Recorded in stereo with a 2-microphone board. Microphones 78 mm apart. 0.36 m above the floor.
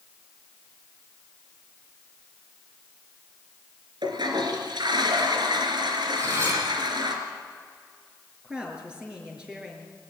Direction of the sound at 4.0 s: 80° right.